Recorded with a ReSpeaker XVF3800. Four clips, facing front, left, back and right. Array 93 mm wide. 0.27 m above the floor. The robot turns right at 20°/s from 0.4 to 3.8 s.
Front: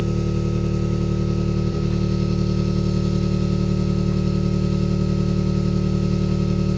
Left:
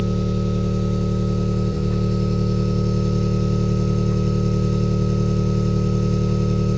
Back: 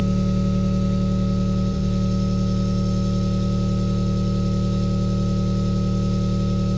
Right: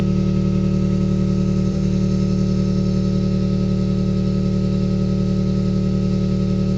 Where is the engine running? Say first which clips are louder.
Right 3 dB, back 1 dB; 45° right, 1.6 m; by 6.8 s 20° left, 1.6 m.